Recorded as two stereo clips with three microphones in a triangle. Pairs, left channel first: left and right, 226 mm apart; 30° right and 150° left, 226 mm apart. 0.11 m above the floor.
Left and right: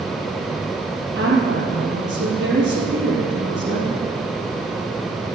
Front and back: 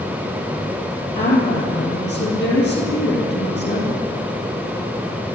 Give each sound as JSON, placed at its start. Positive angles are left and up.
{"t": 1.1, "sound": "a woman speaking", "azimuth_deg": -65, "distance_m": 3.0}